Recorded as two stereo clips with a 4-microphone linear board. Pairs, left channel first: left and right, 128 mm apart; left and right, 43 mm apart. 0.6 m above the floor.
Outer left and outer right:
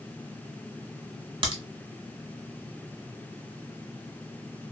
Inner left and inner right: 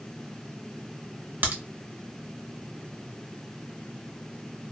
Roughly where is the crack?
Right.